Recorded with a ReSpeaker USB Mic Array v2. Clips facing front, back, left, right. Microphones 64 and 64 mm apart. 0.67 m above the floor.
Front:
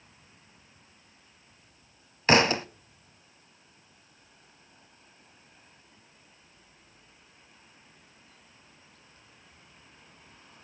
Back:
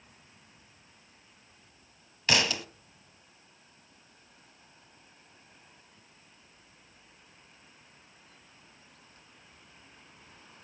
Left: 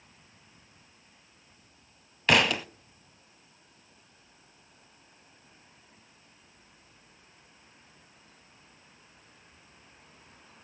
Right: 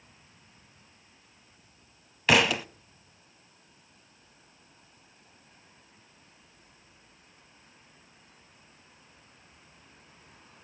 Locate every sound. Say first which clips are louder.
2.3 s a thud: front 7 dB, right 1 dB; 5° right, 0.6 m